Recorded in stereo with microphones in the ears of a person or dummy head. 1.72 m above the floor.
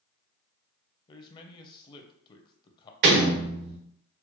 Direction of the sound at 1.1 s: 25° left (ahead or behind).